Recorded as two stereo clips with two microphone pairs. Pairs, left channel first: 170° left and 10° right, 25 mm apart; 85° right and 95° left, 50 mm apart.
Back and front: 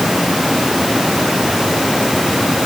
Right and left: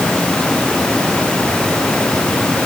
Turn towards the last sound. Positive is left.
No sound to turn to.